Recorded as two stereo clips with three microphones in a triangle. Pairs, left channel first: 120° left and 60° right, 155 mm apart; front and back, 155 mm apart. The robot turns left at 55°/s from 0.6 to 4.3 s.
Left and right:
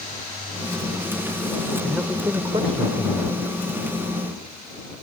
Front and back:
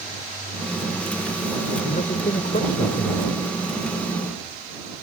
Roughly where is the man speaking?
Ahead left.